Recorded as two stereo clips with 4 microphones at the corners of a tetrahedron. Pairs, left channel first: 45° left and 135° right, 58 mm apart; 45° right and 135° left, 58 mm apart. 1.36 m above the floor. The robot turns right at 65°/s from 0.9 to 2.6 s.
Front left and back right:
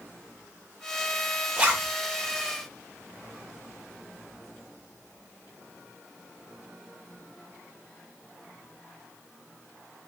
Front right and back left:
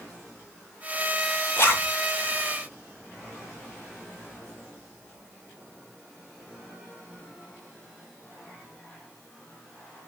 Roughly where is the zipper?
Right.